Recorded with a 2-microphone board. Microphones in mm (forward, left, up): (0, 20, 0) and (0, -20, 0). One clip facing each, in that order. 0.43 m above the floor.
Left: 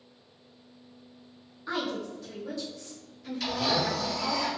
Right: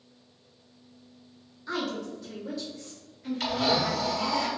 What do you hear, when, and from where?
1.7 s a woman speaking: 20° left (ahead or behind), 1.1 m; by 4.4 s 50° right (ahead or behind), 1.7 m
3.4 s a blender: 70° right (ahead or behind), 1.0 m